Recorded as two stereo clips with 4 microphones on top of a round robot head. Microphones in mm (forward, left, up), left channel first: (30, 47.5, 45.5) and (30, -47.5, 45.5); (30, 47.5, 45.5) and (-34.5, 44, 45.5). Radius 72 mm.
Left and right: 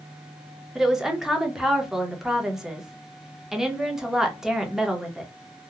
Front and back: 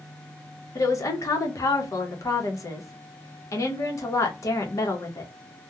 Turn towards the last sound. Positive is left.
turn(degrees=-5)